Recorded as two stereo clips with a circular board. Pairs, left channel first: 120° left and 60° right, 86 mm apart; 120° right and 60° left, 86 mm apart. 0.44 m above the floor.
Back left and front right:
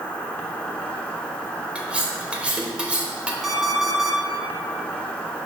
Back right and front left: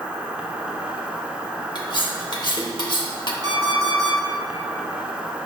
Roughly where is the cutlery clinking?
Behind right.